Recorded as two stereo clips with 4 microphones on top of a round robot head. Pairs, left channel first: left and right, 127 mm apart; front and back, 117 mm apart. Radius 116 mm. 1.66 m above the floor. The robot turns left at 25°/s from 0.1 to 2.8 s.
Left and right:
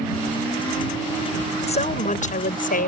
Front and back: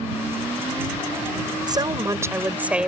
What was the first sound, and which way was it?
A woman speaking, 125° left.